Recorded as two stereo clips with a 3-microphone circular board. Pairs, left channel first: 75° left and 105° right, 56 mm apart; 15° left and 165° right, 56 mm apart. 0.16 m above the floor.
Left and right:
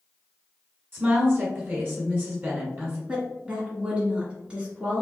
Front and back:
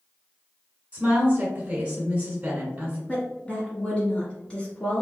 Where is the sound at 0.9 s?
115° right, 1.7 m.